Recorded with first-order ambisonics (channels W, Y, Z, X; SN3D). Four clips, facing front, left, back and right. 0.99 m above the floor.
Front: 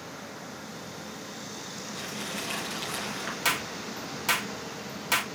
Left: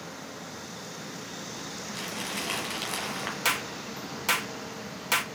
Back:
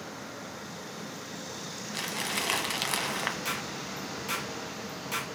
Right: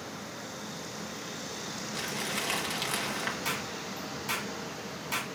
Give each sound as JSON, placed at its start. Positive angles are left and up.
{"t": 1.9, "sound": "crumpling", "azimuth_deg": 180, "distance_m": 1.4}
{"t": 3.5, "sound": "a clap", "azimuth_deg": 55, "distance_m": 0.9}